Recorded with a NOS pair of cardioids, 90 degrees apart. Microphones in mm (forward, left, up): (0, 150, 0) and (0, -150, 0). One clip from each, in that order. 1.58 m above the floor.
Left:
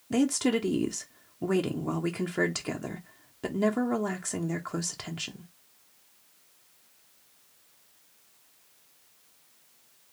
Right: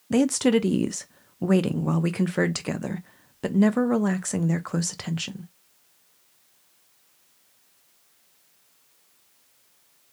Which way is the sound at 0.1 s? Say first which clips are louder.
Right 5 dB; 20° right.